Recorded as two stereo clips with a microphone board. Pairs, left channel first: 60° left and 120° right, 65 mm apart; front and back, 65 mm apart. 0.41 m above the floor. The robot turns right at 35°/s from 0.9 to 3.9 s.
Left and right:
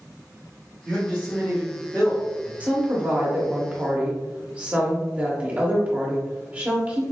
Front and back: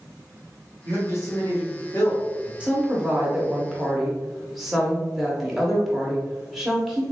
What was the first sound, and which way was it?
A man speaking, 45° right.